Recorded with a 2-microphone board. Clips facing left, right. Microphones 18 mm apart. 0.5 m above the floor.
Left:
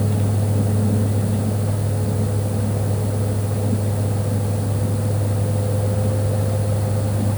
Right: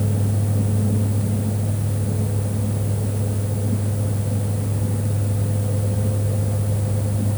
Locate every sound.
Only background noise.